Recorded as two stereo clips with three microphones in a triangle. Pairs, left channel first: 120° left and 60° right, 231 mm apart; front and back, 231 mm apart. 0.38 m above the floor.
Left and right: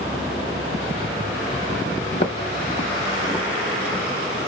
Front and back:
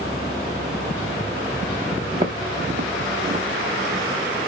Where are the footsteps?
135° left, 0.6 m; by 4.4 s 135° right, 1.3 m.